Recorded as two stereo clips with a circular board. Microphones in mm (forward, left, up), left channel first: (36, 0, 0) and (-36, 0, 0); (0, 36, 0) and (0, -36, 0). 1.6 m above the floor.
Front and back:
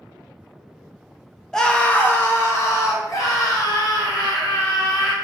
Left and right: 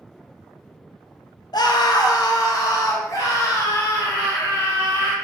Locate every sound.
1.5 s a scream: 80° left, 0.7 m; by 5.1 s 35° left, 2.5 m